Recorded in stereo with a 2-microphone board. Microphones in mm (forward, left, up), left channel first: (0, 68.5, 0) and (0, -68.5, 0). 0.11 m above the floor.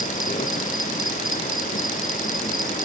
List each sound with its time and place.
0.0 s an insect: 80° left, 1.5 m